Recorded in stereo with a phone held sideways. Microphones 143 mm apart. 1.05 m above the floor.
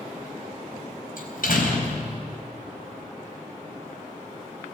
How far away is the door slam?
About 4 m.